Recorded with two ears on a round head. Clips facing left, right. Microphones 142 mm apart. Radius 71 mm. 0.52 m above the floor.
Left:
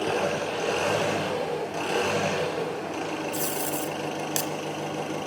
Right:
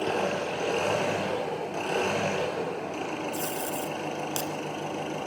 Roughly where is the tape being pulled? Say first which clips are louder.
Left 2 dB; centre.